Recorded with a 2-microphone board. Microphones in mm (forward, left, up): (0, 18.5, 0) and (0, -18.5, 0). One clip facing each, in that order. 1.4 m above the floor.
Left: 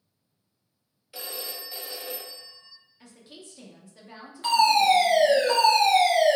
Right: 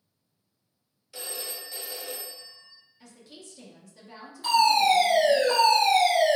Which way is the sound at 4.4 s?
45° left (ahead or behind).